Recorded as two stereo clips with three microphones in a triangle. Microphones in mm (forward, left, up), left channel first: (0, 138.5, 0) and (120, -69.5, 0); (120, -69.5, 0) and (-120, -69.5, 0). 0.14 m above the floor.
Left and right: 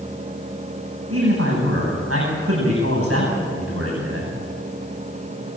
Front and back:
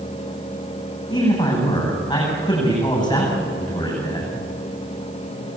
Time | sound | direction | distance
1.1 | a man speaking | 70° right | 9 m